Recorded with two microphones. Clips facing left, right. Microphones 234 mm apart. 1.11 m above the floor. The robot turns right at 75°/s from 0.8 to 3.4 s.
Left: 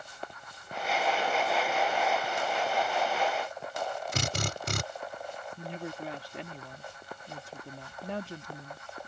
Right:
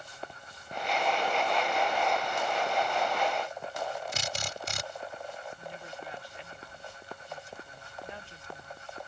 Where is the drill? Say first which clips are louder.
Left 4 dB; 65° left (ahead or behind).